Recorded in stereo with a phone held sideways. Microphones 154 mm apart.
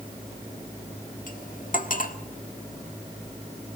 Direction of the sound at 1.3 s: 60° left (ahead or behind).